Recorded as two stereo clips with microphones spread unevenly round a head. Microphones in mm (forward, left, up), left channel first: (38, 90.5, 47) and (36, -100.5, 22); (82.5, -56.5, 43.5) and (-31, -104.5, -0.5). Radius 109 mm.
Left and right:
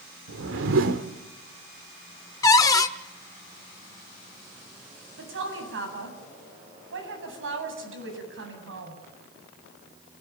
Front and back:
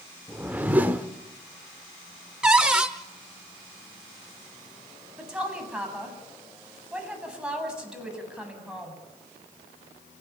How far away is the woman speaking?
About 8.5 m.